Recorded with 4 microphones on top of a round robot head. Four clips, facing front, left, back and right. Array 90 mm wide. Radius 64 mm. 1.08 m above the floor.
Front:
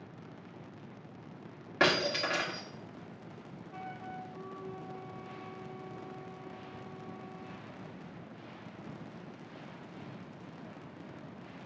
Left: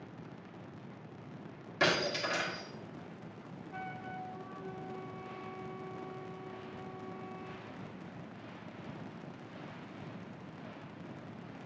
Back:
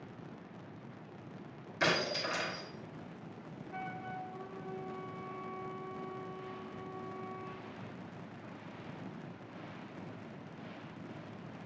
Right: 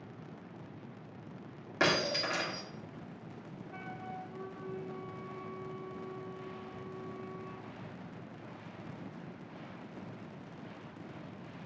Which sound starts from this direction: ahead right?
Breaking glass, at 1.8 s.